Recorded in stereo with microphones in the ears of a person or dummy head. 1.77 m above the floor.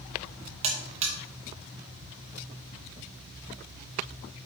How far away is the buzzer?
About 2 m.